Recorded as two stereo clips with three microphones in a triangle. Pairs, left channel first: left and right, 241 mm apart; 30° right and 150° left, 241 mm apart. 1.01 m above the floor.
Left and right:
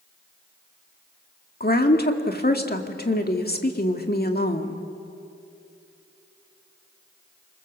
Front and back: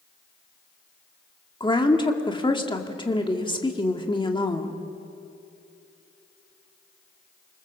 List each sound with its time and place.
1.6 s a woman speaking: 40° left, 2 m